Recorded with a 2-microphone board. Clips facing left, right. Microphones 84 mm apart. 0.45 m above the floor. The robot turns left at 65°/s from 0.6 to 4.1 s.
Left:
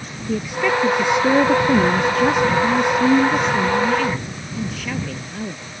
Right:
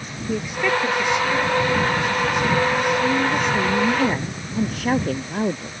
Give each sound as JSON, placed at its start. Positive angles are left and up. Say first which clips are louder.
{"t": 0.3, "sound": "a woman speaking", "louder": "left 2 dB", "azimuth_deg": -175}